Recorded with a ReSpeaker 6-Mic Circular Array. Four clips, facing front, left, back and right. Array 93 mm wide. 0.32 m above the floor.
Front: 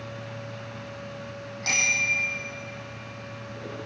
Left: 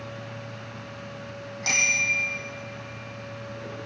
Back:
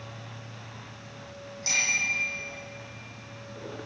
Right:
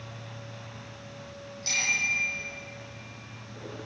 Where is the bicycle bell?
65° left, 9 m.